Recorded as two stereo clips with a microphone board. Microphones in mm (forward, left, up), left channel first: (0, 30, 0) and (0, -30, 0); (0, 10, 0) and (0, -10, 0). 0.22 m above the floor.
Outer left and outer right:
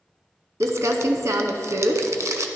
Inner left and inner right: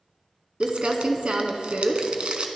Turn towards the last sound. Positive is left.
turn(degrees=-60)  # may be behind; listen again after turning